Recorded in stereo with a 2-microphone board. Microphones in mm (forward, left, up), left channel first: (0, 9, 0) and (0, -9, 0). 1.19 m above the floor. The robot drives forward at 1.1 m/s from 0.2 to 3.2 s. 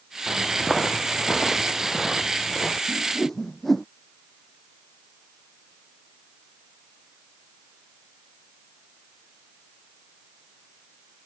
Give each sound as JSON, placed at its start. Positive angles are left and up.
{"t": 0.3, "sound": "footsteps", "side_deg": -5}
{"t": 2.9, "sound": "a whoosh", "side_deg": 10}